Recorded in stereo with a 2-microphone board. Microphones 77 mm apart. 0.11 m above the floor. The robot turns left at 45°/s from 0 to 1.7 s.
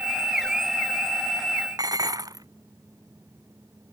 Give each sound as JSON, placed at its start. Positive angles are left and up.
{"t": 1.8, "sound": "dishes clattering", "side_deg": -50}